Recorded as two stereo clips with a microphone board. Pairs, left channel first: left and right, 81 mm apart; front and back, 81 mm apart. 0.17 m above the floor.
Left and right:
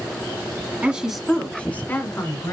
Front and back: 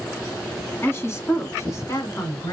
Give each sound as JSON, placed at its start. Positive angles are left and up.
{"t": 0.8, "sound": "a woman speaking", "azimuth_deg": -30, "distance_m": 1.4}